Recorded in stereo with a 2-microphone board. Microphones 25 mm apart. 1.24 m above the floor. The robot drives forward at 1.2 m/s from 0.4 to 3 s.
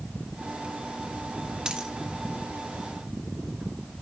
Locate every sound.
1.6 s a dropped coin: 35° right (ahead or behind), 1.6 m; by 1.9 s 30° right (ahead or behind), 1.9 m